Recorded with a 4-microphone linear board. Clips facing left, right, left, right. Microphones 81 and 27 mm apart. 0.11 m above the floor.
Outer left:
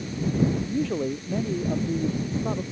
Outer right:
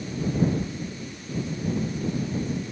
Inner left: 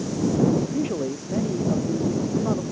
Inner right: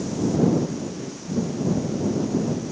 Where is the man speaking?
80° left.